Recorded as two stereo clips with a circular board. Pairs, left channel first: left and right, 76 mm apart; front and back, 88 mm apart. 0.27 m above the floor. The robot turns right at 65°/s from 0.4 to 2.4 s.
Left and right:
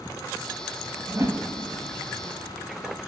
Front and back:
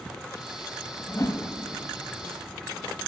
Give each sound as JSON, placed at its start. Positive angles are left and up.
{"t": 1.1, "sound": "a whoosh", "azimuth_deg": -50, "distance_m": 1.0}